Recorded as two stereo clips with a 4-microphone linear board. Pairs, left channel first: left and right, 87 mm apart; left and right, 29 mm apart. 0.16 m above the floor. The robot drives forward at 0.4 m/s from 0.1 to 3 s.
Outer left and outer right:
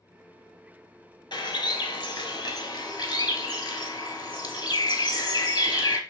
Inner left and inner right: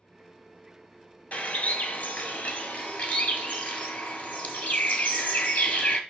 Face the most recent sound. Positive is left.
turn(degrees=50)  # may be behind; listen again after turning